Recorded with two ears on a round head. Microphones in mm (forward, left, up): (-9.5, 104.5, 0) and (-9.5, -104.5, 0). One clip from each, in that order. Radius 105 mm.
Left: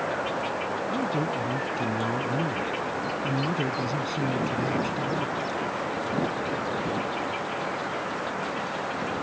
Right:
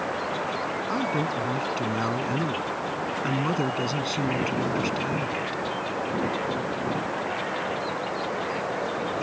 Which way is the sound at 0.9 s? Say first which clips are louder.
Right 1 dB; 35° right (ahead or behind).